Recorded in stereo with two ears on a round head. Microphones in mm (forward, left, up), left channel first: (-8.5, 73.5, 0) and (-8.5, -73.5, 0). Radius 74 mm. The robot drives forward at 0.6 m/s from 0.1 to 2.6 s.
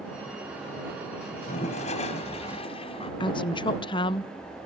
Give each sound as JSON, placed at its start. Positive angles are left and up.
{"t": 1.3, "sound": "a toilet flushing", "side_deg": 50, "distance_m": 1.6}
{"t": 3.2, "sound": "a woman speaking", "side_deg": 30, "distance_m": 0.8}